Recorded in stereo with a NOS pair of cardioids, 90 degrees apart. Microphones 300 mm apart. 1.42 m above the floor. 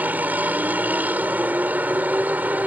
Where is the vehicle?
5° right.